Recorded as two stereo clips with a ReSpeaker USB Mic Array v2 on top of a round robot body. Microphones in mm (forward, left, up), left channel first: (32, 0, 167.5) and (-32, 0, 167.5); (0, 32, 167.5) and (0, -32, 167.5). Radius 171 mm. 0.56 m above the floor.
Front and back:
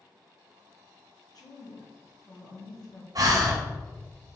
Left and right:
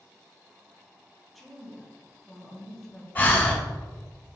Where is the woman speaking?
5° right, 1.4 m.